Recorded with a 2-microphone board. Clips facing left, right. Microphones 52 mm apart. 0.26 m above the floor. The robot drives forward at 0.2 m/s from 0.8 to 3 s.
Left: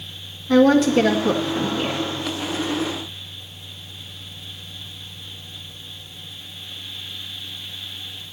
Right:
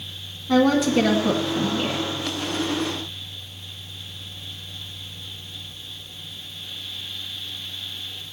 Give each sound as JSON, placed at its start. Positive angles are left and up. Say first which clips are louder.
{"t": 0.5, "sound": "a woman speaking", "louder": "left 4 dB", "side_deg": -15, "distance_m": 2.0}